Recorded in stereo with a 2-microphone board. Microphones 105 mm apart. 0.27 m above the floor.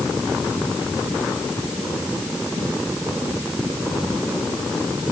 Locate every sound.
Only background noise.